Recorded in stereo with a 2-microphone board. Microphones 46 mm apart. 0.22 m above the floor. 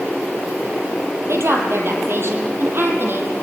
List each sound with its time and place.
1.3 s a woman speaking: 65° right (ahead or behind), 5 m; by 3.3 s 50° right (ahead or behind), 6.5 m